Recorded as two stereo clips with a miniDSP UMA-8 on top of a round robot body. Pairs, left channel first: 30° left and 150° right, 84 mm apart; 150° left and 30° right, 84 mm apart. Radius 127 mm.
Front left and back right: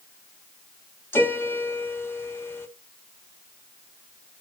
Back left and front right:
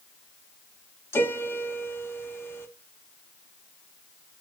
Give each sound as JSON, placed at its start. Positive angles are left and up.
{"t": 1.1, "sound": "a piano", "azimuth_deg": 90, "distance_m": 1.4}